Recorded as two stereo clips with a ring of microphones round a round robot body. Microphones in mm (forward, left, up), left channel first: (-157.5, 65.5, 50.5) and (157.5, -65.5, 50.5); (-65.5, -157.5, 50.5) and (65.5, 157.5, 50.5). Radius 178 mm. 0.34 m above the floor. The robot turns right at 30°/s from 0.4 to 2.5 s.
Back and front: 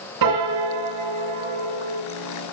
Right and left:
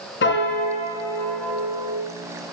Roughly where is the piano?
Ahead right.